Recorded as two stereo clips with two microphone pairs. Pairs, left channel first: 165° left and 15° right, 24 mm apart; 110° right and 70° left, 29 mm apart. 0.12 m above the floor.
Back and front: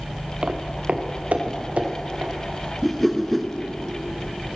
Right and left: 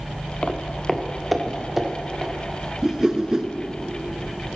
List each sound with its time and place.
0.4 s footsteps: 65° right, 1.1 m; by 2.3 s straight ahead, 3.5 m
2.8 s a whoosh: 90° left, 0.8 m